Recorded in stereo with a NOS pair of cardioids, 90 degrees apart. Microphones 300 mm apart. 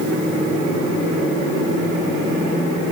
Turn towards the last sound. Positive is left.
No sound to turn to.